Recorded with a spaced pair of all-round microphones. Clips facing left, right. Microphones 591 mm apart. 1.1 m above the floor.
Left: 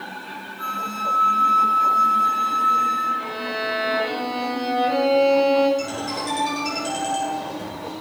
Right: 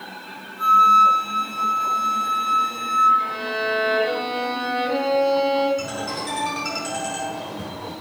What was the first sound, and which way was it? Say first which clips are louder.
A flute: right 8 dB; 75° right (ahead or behind).